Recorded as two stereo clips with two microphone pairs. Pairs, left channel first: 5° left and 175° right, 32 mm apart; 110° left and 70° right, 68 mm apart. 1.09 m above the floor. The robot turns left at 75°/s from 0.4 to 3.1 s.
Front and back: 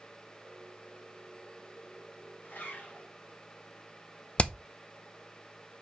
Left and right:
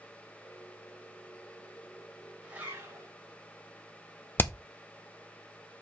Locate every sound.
2.4 s a zipper: 10° left, 4 m; by 3.1 s 40° right, 4 m
4.4 s hammering: 55° left, 0.6 m